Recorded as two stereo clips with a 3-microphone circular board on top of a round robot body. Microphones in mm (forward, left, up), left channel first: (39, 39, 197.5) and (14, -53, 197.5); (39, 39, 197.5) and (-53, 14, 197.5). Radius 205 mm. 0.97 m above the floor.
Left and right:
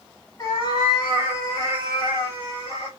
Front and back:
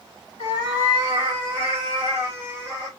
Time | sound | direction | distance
0.4 | a cat meowing | 25° left | 1.0 m